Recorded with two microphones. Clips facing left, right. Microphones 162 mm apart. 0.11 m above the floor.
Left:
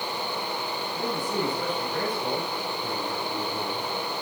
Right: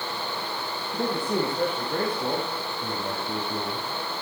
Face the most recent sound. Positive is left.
turn(degrees=-70)  # may be behind; listen again after turning